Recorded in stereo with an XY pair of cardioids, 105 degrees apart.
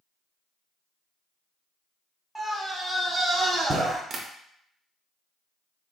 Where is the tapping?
55° right, 0.6 m.